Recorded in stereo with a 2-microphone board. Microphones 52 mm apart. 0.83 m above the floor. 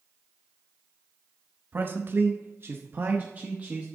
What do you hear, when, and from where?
1.7 s a man speaking: 40° right (ahead or behind), 0.9 m; by 3.9 s 30° right (ahead or behind), 1.1 m